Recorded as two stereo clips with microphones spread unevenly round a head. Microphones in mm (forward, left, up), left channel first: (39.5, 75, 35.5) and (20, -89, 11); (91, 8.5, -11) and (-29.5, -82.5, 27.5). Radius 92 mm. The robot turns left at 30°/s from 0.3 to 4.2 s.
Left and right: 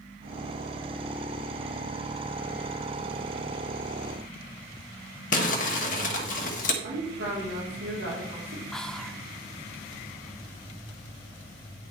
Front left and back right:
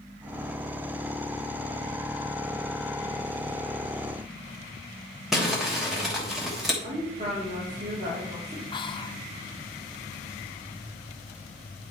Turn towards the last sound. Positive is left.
turn(degrees=-10)